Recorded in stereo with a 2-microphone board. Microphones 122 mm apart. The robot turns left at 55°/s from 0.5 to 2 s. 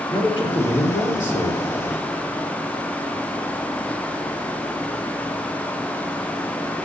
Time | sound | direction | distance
0.1 | a man speaking | 135° left | 6 m